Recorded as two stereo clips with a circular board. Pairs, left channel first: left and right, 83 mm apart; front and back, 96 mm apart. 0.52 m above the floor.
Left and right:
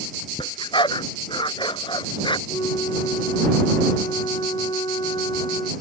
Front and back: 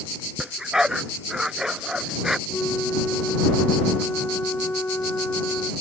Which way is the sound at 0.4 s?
95° left.